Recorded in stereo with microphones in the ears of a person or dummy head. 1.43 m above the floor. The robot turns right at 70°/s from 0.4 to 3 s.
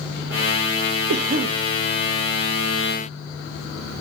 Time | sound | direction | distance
1.1 | a cough | 125° right | 0.7 m